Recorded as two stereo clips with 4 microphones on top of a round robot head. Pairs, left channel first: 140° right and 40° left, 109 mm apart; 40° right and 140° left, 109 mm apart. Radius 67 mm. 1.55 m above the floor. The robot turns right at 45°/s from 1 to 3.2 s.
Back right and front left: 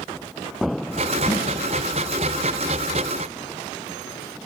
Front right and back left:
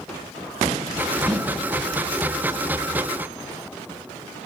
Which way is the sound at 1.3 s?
110° right.